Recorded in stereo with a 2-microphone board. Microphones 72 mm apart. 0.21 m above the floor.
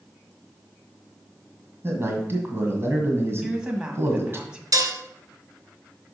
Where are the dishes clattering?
60° right (ahead or behind), 1.4 m.